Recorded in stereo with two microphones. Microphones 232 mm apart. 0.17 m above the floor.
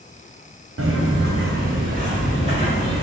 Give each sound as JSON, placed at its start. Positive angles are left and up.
{"t": 0.8, "sound": "footsteps", "side_deg": -70, "distance_m": 1.1}